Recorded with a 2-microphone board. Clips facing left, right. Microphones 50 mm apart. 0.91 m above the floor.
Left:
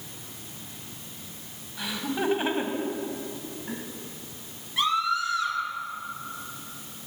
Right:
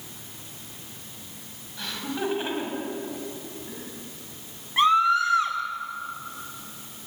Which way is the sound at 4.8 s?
35° right (ahead or behind).